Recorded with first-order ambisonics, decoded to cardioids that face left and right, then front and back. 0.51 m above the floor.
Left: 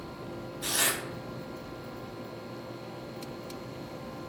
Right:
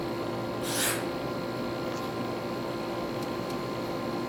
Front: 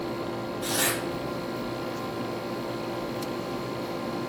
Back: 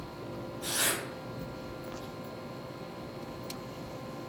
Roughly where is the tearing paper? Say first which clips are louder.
Left 2 dB, front 4 dB; left.